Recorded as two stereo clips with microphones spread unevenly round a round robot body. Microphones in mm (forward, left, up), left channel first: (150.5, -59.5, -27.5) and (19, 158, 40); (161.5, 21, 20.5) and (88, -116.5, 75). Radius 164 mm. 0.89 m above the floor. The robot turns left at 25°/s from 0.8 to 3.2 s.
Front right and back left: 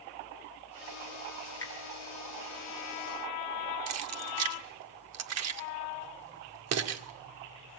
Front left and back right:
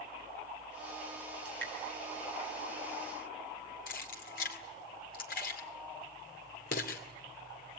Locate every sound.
1.4 s dripping: 135° right, 7 m; by 1.7 s 145° right, 7 m
3.9 s keys jangling: 100° left, 2 m